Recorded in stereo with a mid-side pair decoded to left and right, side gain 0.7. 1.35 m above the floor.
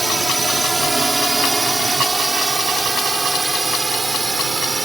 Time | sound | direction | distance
0.0 | a drone | 10° right | ?